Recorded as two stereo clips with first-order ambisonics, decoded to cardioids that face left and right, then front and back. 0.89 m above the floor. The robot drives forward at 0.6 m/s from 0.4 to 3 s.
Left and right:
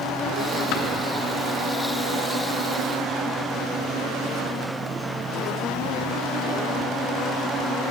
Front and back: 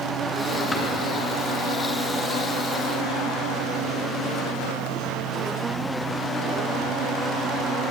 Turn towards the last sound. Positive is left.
turn(degrees=130)